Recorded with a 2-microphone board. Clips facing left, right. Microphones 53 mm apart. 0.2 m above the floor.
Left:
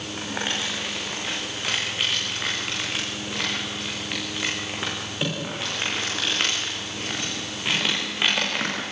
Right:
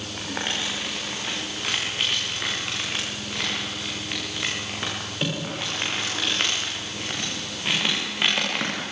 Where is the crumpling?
Centre (ahead or behind), 8.5 m.